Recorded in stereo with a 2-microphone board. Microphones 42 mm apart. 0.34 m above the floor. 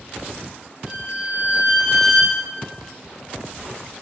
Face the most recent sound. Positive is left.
turn(degrees=20)  # may be behind; listen again after turning